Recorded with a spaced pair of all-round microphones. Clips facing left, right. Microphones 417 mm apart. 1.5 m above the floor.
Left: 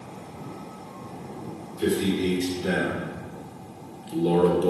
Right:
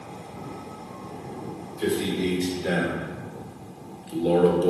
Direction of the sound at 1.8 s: 30° left (ahead or behind).